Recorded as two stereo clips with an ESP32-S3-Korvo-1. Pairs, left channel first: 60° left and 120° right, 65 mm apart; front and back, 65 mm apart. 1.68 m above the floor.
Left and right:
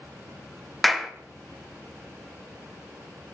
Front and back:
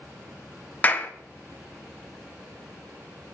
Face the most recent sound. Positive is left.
turn(degrees=-25)